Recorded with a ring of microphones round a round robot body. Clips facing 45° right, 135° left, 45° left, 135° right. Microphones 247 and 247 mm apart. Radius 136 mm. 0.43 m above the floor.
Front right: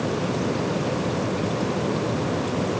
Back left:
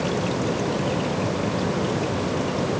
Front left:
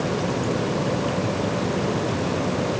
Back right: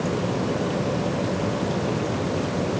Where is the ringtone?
No ringtone in this recording.